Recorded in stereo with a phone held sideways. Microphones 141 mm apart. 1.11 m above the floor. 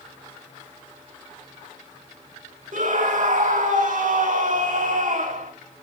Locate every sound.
2.7 s a scream: 55° right (ahead or behind), 1.5 m